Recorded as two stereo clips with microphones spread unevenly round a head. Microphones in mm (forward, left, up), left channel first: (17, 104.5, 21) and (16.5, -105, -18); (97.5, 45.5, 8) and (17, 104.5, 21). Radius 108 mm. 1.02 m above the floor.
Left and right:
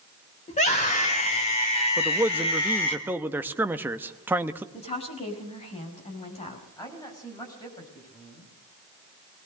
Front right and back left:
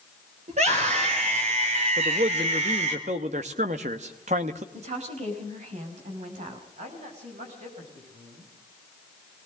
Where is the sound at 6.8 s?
165° left, 6.5 m.